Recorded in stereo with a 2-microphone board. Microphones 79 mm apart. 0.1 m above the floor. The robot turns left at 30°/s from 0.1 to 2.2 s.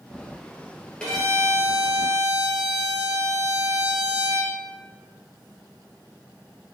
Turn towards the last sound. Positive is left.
turn(degrees=-20)